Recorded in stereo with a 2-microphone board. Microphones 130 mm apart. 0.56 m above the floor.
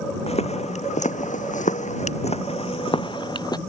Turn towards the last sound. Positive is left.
turn(degrees=30)  # may be behind; listen again after turning